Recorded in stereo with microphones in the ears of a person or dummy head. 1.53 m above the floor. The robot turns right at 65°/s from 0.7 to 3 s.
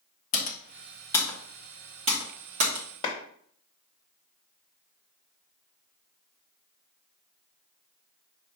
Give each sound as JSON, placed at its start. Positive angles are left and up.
{"t": 0.3, "sound": "typing on a keyboard", "side_deg": 40, "distance_m": 1.1}
{"t": 3.0, "sound": "a clap", "side_deg": 35, "distance_m": 1.0}